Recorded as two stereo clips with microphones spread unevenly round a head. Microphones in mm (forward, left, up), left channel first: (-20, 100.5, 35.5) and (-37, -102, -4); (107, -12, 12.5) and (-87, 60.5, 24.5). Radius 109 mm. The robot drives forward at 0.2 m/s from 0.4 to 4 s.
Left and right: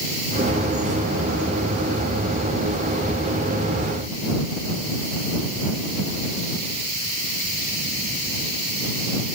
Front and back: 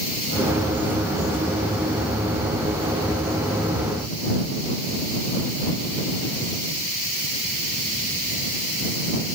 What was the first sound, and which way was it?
Only background noise.